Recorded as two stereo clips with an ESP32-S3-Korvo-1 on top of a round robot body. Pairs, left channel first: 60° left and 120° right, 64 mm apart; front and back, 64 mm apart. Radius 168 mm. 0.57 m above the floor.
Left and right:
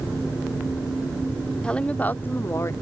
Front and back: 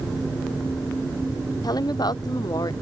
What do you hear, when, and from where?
1.6 s a woman speaking: 15° right; by 2.7 s 15° left